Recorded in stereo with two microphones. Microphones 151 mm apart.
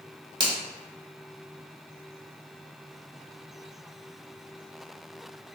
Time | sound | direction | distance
0.4 | a finger snap | 35° right (ahead or behind) | 1.1 m